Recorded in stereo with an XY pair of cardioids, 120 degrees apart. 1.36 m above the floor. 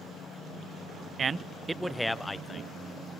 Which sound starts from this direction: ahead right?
A man speaking, at 1.2 s.